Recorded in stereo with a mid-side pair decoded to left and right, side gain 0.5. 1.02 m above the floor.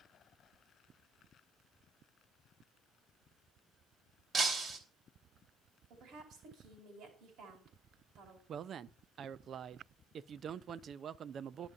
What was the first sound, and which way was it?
Breaking glass, 45° right.